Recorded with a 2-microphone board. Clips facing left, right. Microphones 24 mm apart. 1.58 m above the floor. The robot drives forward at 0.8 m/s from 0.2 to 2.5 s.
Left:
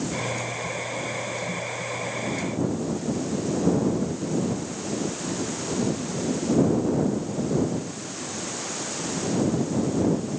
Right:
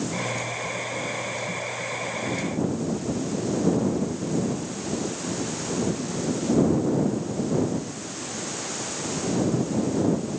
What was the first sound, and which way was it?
Only background noise.